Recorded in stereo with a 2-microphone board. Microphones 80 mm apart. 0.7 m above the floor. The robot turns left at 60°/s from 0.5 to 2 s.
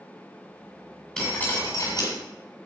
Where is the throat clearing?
I don't hear throat clearing.